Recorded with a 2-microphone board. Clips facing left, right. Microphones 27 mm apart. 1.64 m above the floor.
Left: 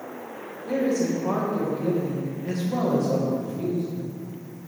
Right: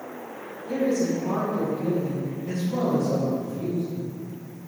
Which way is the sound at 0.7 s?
85° left.